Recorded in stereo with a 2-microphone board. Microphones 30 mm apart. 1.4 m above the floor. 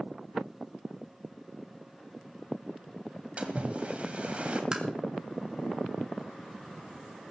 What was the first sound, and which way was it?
A splash, 45° right (ahead or behind).